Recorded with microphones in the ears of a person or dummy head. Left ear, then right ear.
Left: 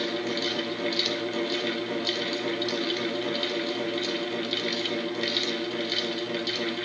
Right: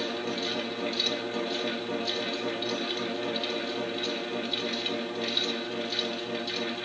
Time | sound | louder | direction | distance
0.0 | a fan | left 3 dB | 80° left | 2 m